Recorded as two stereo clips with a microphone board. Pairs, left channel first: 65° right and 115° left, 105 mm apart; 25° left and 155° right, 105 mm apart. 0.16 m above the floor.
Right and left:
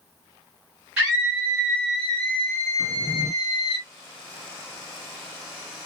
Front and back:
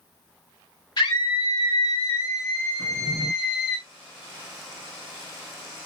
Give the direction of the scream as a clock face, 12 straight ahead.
11 o'clock.